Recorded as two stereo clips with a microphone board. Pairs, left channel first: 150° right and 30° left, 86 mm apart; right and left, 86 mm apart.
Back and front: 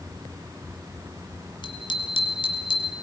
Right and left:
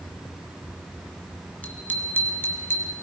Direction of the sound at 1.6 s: 160° right.